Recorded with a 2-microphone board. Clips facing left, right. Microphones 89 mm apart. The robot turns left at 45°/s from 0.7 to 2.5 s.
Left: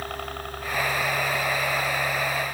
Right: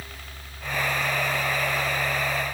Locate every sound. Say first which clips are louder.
0.0 s a helicopter: left 11 dB; 55° left (ahead or behind); by 2.5 s 5° right (ahead or behind)